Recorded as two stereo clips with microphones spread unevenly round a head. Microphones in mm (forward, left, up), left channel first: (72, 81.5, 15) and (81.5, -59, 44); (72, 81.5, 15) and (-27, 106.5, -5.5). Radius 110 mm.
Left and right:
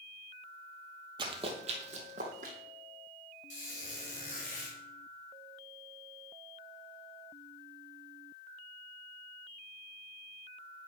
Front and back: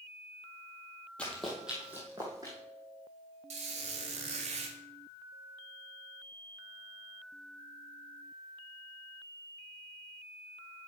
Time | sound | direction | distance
1.2 | running footsteps | 75° right | 1.7 m
3.5 | a squeak | 155° left | 1.9 m